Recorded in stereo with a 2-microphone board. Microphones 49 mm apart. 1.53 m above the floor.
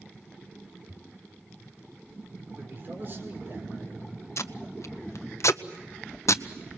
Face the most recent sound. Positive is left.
turn(degrees=70)  # may be behind; listen again after turning